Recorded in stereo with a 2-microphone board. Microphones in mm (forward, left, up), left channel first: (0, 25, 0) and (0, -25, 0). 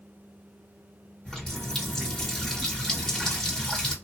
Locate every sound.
1.2 s a running tap: 15° left (ahead or behind), 1.0 m